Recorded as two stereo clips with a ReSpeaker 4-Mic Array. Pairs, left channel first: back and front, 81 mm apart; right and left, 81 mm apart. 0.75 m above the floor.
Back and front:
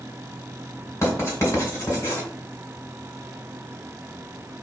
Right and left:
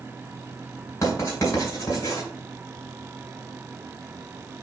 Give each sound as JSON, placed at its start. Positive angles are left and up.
{"t": 1.0, "sound": "writing", "azimuth_deg": -125, "distance_m": 2.5}